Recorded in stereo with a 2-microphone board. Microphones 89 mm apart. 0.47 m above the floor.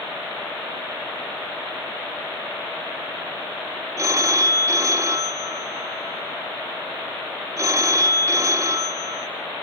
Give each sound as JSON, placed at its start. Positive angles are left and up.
{"t": 4.0, "sound": "a phone ringing", "side_deg": -35, "distance_m": 1.3}